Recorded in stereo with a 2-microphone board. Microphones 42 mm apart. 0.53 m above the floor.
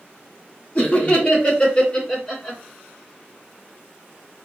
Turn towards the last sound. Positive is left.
turn(degrees=5)  # may be behind; listen again after turning